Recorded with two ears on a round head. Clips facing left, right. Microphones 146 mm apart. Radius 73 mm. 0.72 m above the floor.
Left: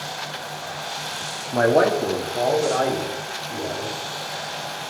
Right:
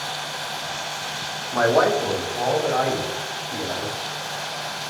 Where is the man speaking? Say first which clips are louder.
Left 1 dB; 25° left (ahead or behind), 1.0 m; by 3.9 s 55° left (ahead or behind), 3.5 m.